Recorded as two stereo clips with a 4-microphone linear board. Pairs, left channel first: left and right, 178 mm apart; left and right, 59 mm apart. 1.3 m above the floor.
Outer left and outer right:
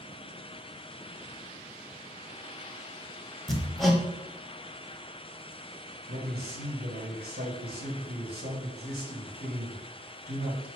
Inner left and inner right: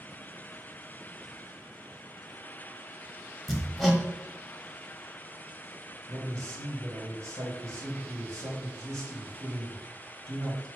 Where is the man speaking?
75° right (ahead or behind), 1.7 m.